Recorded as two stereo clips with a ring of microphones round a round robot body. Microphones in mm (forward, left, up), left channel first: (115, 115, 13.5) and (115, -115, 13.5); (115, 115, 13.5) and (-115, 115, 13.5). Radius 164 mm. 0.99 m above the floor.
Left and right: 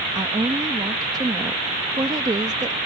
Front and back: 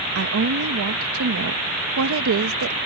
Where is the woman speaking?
165° right.